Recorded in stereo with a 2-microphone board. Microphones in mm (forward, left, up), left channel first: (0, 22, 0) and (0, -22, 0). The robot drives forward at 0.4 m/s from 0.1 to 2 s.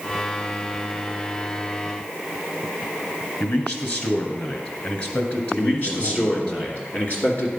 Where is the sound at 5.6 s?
40° left (ahead or behind), 2.5 m.